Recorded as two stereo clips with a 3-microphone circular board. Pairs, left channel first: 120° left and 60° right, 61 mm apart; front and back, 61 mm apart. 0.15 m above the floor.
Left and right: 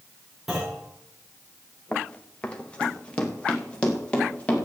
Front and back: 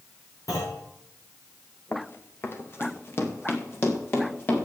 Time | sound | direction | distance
0.5 | a clunk | 25° left | 7 m
1.9 | running footsteps | 50° left | 1.6 m